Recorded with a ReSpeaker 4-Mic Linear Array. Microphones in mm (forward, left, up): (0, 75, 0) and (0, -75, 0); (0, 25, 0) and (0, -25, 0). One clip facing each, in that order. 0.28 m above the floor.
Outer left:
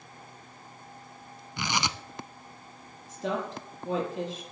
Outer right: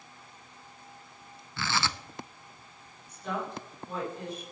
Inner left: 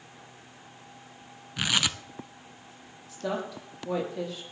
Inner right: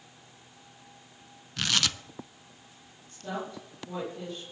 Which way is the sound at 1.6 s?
15° left (ahead or behind).